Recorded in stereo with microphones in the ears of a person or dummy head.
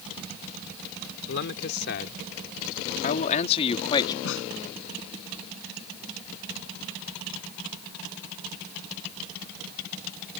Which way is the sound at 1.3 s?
60° left (ahead or behind).